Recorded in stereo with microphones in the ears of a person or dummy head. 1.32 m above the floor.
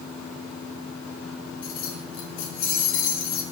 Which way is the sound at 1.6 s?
55° left (ahead or behind).